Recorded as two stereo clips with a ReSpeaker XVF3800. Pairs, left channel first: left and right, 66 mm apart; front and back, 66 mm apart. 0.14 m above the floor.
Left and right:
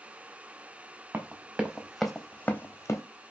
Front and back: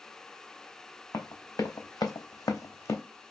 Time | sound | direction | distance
1.1 | running footsteps | 30° right | 0.8 m